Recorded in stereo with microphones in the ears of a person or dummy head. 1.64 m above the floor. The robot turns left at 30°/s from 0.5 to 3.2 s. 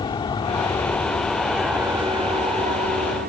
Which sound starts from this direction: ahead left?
An aircraft, at 0.0 s.